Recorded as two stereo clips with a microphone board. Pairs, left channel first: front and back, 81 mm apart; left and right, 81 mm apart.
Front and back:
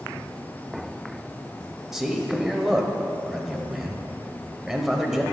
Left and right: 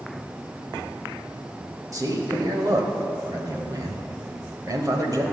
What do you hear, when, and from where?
1.9 s a man speaking: 100° right, 1.2 m